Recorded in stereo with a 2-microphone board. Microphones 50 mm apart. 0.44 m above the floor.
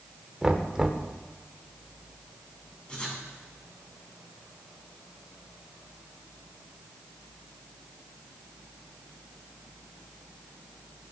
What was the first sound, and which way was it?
Knocking, 15° right (ahead or behind).